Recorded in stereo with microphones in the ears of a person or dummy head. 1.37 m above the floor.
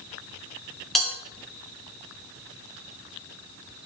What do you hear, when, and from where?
0.9 s a bell: centre (ahead or behind), 1.7 m